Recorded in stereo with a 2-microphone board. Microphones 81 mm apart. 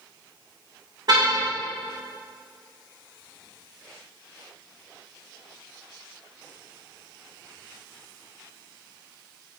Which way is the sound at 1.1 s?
55° right (ahead or behind).